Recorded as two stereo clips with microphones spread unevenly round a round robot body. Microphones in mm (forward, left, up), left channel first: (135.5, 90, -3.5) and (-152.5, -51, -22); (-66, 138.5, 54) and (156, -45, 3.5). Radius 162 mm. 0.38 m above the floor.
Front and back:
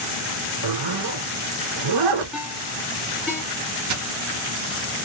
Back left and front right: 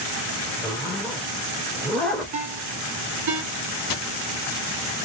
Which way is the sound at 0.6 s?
135° right.